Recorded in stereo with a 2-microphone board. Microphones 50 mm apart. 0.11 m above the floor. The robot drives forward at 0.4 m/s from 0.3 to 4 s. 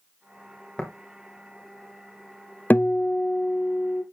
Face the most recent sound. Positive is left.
turn(degrees=20)  # may be behind; listen again after turning